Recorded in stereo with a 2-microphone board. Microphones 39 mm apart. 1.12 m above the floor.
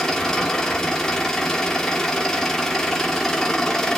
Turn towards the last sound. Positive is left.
turn(degrees=10)  # may be behind; listen again after turning